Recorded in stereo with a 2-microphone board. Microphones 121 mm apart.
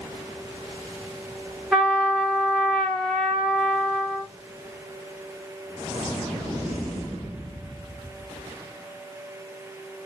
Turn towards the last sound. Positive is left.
turn(degrees=0)  # may be behind; listen again after turning